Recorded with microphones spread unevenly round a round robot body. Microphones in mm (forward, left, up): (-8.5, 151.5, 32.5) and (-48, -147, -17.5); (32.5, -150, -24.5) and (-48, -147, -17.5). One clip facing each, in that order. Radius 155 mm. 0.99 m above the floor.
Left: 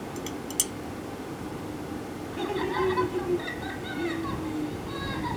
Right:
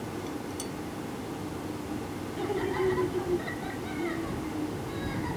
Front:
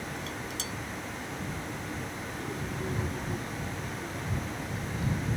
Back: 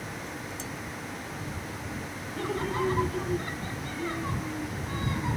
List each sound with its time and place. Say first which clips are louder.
0.2 s dishes clattering: left 2 dB, even; 45° left
2.3 s laughter: left 1 dB, back 10 dB; 150° left